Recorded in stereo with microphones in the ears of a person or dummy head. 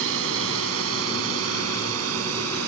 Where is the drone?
75° right (ahead or behind); by 2.7 s 85° right.